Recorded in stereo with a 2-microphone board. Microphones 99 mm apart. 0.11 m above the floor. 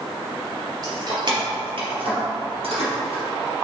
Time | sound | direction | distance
0.8 | keys jangling | 40° right (ahead or behind) | 1.8 m